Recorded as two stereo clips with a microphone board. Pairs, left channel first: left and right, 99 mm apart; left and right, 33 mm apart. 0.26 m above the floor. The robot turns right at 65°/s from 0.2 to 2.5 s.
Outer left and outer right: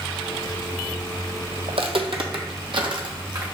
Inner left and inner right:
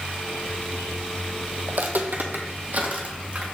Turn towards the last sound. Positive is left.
turn(degrees=-45)  # may be behind; listen again after turning